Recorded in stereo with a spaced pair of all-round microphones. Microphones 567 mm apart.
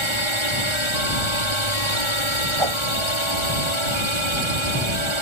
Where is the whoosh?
60° right (ahead or behind).